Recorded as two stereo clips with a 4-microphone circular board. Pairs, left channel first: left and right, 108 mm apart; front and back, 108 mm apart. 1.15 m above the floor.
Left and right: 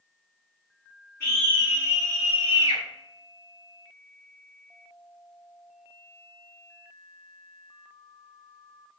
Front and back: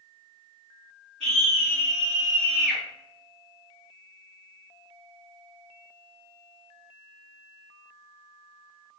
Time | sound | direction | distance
1.2 | a scream | 155° left | 1.8 m